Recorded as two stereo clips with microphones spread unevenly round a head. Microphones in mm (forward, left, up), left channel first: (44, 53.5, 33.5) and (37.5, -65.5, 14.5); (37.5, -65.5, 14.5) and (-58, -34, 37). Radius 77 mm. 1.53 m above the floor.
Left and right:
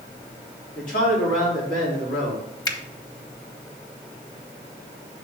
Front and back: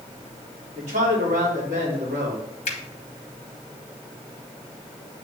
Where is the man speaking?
125° left, 2.5 m.